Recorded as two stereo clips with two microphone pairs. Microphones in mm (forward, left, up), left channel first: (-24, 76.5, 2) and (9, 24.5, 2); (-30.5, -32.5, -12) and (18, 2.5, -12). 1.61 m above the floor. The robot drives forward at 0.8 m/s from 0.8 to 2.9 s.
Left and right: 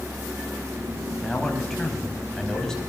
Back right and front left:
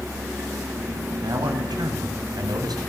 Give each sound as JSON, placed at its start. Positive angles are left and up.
{"t": 1.2, "sound": "a man speaking", "azimuth_deg": 35, "distance_m": 10.0}